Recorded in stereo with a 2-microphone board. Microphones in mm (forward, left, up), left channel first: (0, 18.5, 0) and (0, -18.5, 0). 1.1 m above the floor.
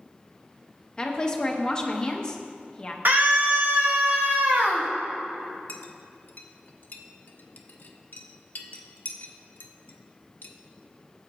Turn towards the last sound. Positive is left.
turn(degrees=55)  # may be behind; listen again after turning